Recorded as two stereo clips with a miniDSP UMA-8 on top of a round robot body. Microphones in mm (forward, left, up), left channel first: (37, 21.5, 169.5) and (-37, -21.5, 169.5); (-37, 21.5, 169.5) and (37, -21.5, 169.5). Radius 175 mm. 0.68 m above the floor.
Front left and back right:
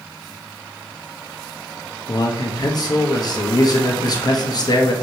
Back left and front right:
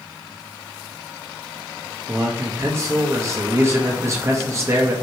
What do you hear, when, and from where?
2.1 s a man speaking: 15° left, 1.1 m